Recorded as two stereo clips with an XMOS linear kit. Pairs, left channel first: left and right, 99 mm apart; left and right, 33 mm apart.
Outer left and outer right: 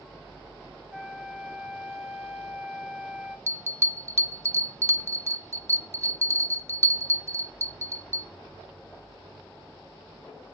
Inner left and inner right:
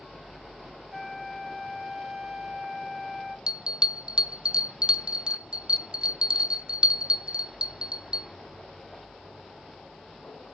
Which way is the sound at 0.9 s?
10° right (ahead or behind).